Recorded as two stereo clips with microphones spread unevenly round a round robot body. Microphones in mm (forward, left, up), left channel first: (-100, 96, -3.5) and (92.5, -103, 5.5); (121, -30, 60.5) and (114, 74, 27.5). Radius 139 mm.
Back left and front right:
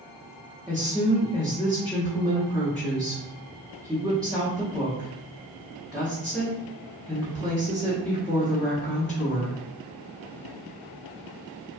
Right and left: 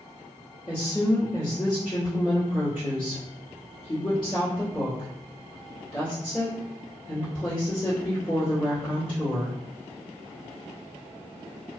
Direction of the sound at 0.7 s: 140° right.